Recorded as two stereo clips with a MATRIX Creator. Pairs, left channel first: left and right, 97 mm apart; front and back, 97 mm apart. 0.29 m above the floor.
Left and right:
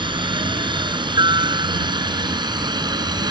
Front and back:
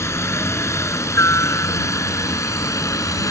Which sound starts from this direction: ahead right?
A helicopter, at 0.0 s.